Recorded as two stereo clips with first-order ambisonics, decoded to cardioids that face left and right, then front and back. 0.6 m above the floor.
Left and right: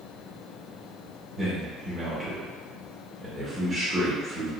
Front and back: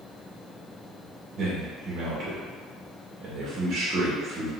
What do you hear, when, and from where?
1.4 s a man speaking: 160° right, 0.7 m